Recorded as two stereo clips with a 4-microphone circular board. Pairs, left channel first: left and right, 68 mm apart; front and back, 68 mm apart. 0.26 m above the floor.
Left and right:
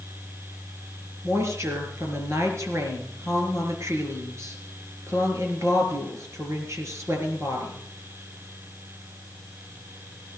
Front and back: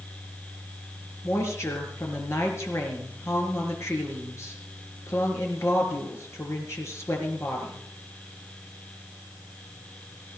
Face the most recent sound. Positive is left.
turn(degrees=-45)